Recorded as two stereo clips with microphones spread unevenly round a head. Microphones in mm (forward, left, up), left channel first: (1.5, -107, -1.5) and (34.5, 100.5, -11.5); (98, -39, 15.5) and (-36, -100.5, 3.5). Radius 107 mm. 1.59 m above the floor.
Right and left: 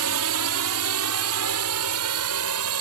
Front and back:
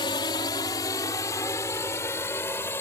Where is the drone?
95° left; by 2.8 s 105° left.